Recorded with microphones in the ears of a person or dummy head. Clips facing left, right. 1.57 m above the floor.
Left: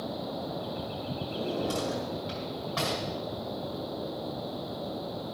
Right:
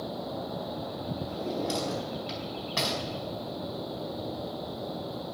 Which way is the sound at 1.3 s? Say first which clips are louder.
Left 1 dB; 30° right (ahead or behind).